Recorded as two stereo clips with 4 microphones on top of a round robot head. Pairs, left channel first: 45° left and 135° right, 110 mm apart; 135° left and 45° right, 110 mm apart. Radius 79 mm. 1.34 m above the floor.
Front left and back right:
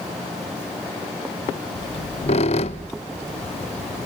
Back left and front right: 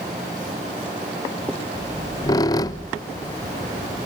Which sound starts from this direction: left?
A squeak, at 1.8 s.